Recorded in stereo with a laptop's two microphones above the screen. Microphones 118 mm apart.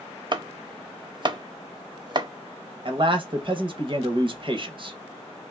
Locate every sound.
0.3 s chopping: 40° right (ahead or behind), 0.5 m
2.9 s a man speaking: 45° right (ahead or behind), 0.8 m